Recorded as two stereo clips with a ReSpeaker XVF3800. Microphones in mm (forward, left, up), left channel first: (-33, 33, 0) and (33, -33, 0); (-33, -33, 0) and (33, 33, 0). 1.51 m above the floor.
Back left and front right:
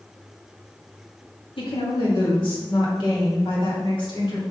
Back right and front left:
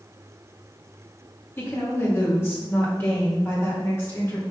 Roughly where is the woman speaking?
Behind.